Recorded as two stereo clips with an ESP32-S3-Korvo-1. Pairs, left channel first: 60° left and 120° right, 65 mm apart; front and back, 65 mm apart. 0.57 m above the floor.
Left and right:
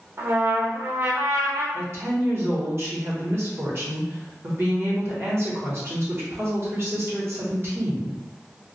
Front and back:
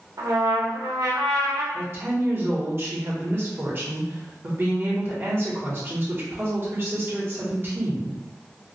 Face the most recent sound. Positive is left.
turn(degrees=-145)